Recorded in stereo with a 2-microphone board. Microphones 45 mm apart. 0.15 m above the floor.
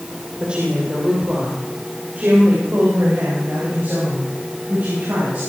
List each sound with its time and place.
0.4 s a woman speaking: 25° right (ahead or behind), 4.5 m; by 5.4 s 60° right (ahead or behind), 11 m